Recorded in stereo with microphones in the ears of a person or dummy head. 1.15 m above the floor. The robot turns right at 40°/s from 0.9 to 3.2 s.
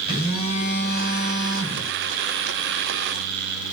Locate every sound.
0.1 s a phone buzzing: 50° left, 3.5 m; by 1.9 s 90° left, 3.5 m